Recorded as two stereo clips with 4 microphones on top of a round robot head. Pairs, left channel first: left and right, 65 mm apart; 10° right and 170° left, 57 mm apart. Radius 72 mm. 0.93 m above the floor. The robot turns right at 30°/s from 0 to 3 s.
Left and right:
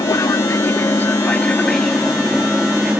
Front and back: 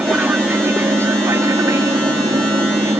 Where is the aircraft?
110° left; by 3.0 s 160° right.